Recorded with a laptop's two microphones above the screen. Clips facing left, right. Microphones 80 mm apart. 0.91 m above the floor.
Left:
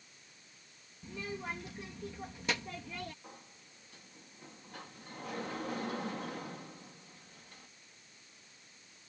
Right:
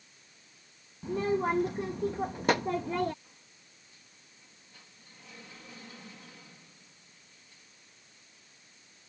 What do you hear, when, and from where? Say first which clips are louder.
1.0 s a child speaking: right 13 dB; 50° right (ahead or behind)
3.2 s a sliding door: left 7 dB; 65° left (ahead or behind)